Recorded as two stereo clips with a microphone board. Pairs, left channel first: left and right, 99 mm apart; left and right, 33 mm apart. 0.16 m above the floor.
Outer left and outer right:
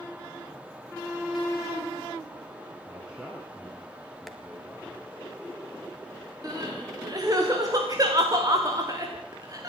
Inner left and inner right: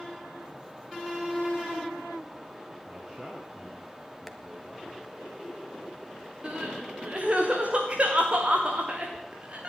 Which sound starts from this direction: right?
Crying, at 6.4 s.